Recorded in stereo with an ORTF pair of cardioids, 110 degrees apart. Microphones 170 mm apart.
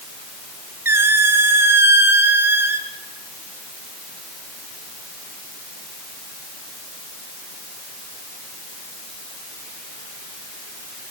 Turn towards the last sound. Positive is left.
turn(degrees=-15)